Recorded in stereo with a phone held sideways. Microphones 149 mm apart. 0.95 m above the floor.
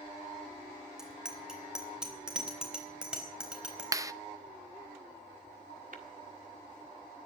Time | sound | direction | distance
1.0 | a bicycle bell | 5° right (ahead or behind) | 2.5 m
3.9 | a clap | 20° right (ahead or behind) | 0.6 m
5.9 | tapping | 65° right (ahead or behind) | 1.8 m